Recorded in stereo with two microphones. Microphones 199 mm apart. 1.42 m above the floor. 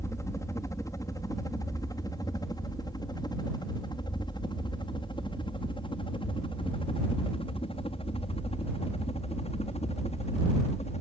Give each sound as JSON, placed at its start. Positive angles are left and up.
{"t": 0.0, "sound": "a helicopter", "side_deg": 15}